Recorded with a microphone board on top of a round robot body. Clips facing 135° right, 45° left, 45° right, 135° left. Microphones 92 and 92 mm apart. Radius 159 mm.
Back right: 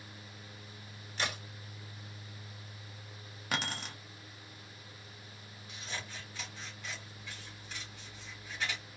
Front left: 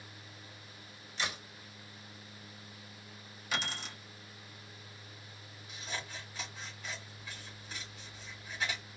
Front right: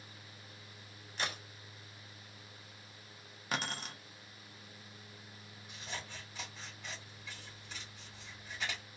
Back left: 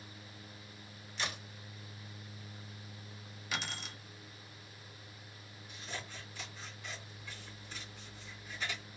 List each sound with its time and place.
1.2 s a crack: 95° right, 1.3 m
3.5 s keys jangling: 95° right, 0.6 m
5.7 s scissors: 35° right, 1.5 m